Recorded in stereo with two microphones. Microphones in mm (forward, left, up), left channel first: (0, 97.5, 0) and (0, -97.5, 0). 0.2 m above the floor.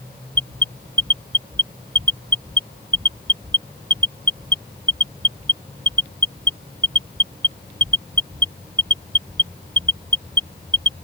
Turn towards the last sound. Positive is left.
turn(degrees=-25)  # may be behind; listen again after turning